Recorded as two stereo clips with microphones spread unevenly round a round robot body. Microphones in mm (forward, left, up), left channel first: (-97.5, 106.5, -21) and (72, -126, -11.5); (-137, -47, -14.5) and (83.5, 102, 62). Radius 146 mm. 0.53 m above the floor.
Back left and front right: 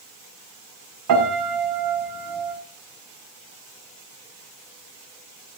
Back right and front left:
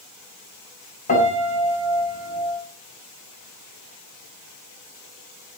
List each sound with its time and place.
1.1 s a piano: 90° right, 6.5 m